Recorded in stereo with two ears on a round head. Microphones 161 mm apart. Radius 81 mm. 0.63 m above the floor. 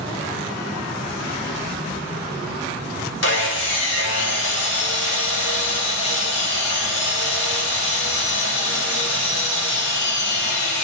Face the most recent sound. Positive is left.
turn(degrees=70)  # may be behind; listen again after turning